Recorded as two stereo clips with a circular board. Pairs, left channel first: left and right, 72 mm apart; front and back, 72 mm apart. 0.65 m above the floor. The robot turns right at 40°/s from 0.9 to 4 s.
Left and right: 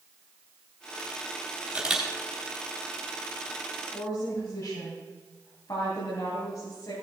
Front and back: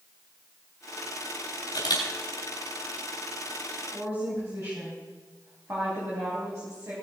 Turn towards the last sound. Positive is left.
turn(degrees=130)